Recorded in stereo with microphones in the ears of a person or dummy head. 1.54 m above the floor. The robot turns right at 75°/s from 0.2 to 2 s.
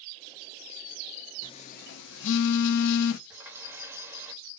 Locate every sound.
1.4 s a phone buzzing: 25° left, 0.6 m; by 3.2 s 65° left, 0.6 m
3.3 s a running tap: 15° right (ahead or behind), 1.6 m